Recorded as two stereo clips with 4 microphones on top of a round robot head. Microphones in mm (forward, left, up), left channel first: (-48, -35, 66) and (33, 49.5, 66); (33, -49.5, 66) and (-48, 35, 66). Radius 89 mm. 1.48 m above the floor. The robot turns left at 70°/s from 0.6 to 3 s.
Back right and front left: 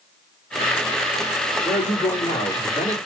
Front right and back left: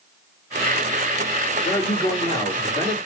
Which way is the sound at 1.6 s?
20° right.